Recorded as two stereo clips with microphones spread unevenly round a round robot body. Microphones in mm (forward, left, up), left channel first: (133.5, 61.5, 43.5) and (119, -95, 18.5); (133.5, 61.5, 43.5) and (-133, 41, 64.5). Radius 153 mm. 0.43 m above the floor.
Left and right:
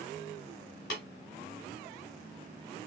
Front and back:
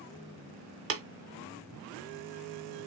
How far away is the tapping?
About 0.7 m.